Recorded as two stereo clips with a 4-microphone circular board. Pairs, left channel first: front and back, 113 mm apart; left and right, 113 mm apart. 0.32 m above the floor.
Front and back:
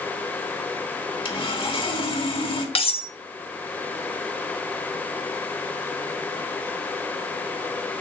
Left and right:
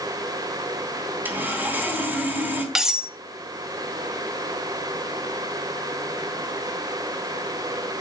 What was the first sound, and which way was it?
Sawing, 20° right.